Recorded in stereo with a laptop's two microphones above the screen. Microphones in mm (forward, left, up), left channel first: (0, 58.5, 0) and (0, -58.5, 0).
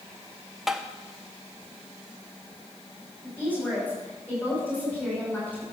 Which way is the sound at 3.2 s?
15° left (ahead or behind).